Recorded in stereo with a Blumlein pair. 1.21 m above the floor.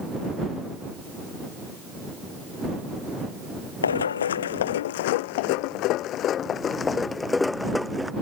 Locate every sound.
3.8 s running footsteps: 70° left; by 8.1 s straight ahead